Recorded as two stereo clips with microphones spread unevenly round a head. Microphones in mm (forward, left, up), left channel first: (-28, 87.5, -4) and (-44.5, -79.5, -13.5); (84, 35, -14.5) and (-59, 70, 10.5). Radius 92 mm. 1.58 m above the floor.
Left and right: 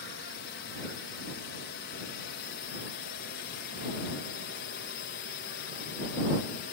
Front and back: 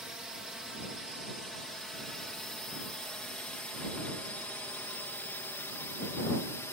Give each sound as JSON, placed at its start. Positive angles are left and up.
{"t": 0.0, "sound": "a drone", "azimuth_deg": 80}